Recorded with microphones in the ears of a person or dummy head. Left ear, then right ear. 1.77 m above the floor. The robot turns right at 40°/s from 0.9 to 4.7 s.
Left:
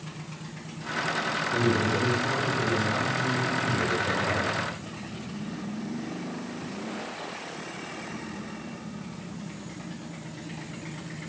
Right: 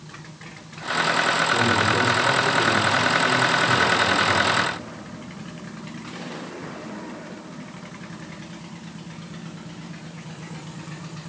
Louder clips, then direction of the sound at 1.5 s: Right 6 dB; 140° right.